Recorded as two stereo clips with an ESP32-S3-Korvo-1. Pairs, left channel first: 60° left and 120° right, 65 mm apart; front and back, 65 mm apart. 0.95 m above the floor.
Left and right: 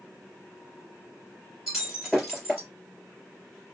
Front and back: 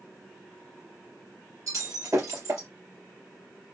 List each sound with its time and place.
1.7 s breaking glass: 155° left, 2.5 m